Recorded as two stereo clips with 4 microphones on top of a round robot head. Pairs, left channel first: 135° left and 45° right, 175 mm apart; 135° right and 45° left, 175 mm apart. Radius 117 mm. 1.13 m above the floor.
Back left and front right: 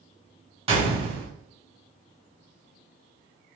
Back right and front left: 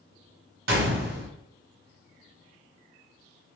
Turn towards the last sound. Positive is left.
turn(degrees=15)